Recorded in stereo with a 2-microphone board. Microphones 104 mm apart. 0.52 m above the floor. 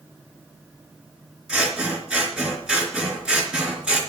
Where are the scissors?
10° right (ahead or behind), 3.5 m.